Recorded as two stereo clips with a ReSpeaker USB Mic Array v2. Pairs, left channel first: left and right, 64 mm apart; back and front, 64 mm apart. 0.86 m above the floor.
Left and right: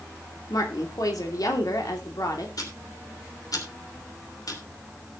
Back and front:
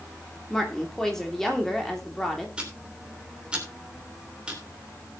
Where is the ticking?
75° left, 3 m.